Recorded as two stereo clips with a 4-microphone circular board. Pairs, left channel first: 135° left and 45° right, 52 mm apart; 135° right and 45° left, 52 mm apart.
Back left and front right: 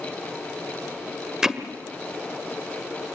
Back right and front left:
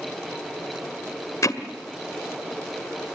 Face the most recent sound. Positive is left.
turn(degrees=-125)